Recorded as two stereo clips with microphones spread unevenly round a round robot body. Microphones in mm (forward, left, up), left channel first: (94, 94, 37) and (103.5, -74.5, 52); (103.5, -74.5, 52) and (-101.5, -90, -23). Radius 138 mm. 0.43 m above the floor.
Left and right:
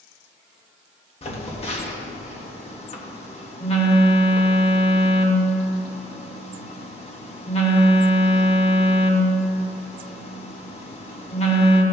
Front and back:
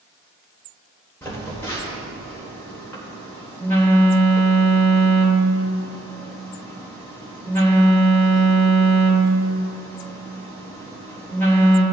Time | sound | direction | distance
1.2 | a phone buzzing | 105° left | 1.5 m